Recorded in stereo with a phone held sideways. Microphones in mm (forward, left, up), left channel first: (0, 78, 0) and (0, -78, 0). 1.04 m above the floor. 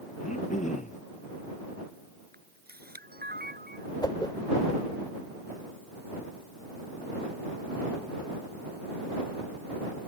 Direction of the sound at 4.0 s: 30° left (ahead or behind).